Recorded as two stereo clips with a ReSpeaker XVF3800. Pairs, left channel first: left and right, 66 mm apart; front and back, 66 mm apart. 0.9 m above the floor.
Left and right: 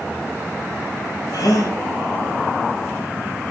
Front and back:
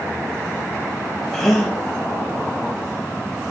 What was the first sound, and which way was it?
A gasp, 85° left.